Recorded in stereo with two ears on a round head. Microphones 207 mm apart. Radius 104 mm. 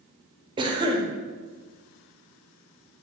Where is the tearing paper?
I don't hear tearing paper.